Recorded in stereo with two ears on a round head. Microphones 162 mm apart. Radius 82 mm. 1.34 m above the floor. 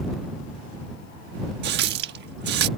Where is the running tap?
60° right (ahead or behind).